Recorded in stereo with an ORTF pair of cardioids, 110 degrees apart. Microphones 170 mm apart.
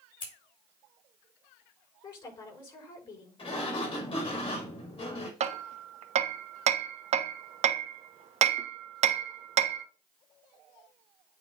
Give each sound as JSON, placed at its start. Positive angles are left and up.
{"t": 0.2, "sound": "scissors", "azimuth_deg": 30, "distance_m": 5.0}
{"t": 2.0, "sound": "a woman speaking", "azimuth_deg": 30, "distance_m": 5.0}
{"t": 3.4, "sound": "a sliding door", "azimuth_deg": 30, "distance_m": 5.5}
{"t": 5.4, "sound": "hammering", "azimuth_deg": -45, "distance_m": 0.9}